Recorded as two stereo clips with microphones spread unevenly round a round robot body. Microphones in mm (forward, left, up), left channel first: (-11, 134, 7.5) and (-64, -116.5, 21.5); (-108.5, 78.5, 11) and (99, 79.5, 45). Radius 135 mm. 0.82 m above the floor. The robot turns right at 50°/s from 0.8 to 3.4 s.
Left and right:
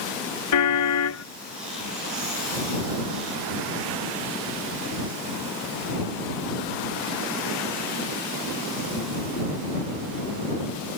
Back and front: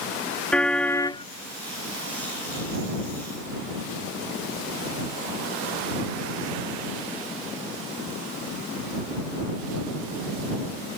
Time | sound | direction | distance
0.5 | a car horn | 95° left | ?